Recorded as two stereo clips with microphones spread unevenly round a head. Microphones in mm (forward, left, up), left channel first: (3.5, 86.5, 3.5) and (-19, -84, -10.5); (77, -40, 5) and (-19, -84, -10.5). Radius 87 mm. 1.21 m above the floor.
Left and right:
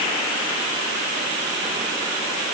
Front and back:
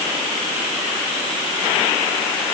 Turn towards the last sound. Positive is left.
No sound to turn to.